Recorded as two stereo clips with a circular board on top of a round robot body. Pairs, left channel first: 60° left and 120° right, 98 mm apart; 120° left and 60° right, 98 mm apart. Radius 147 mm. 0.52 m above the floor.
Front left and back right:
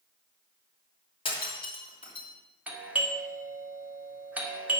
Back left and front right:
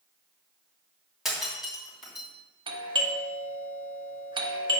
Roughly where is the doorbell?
Ahead right.